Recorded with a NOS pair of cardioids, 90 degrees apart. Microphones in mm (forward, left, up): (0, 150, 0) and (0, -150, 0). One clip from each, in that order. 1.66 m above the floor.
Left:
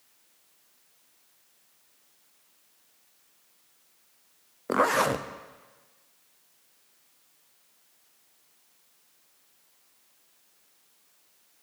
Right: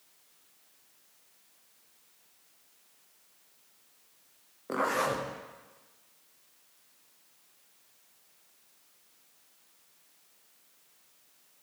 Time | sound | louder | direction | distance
4.7 | a zipper | left 6 dB | 40° left | 0.8 m